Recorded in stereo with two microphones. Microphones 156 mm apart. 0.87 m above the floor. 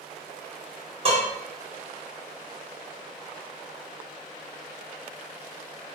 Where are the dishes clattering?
35° right (ahead or behind), 1.2 m.